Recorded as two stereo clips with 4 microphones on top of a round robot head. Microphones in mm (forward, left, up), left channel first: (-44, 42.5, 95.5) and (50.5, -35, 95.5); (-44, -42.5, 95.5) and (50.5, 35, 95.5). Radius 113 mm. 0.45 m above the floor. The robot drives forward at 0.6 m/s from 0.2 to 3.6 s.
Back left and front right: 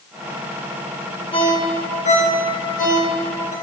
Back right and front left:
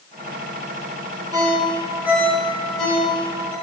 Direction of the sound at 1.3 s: 95° left.